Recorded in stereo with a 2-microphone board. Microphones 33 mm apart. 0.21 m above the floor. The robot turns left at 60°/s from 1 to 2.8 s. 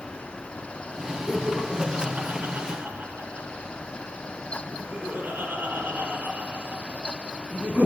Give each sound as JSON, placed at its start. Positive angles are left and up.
{"t": 1.3, "sound": "laughter", "side_deg": 10, "distance_m": 2.0}